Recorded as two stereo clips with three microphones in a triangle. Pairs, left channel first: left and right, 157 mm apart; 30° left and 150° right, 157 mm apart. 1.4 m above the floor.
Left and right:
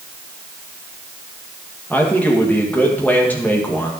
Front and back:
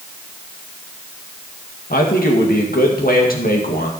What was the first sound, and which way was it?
A man speaking, 10° left.